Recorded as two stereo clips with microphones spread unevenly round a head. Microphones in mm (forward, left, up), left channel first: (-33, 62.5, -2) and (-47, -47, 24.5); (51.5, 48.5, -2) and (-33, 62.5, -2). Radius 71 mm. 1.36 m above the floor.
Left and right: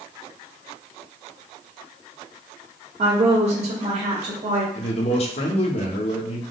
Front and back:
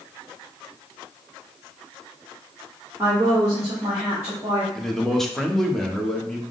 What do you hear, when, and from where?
3.0 s a woman speaking: 115° right, 1.1 m
4.8 s a man speaking: 75° left, 1.0 m